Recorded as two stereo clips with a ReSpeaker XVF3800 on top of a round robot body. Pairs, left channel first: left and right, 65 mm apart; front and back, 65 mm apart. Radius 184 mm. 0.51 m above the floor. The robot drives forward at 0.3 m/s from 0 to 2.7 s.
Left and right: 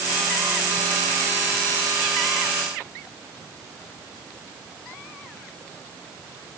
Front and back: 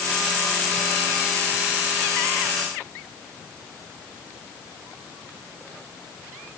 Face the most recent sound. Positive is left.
No sound to turn to.